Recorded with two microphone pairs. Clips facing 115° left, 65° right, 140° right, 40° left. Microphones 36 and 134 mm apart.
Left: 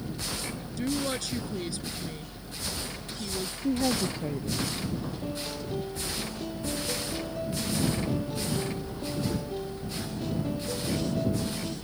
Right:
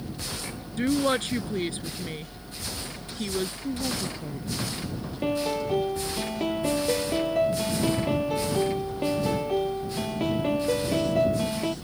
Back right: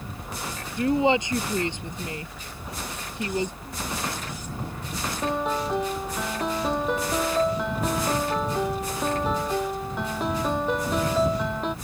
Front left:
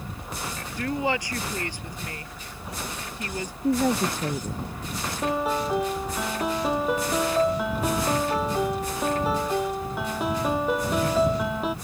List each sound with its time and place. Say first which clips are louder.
0.8 s a woman speaking: right 7 dB, back right 6 dB; 80° right
3.6 s a woman speaking: left 3 dB, front left 10 dB; 55° left
5.2 s a piano: right 8 dB, front left 1 dB; 45° right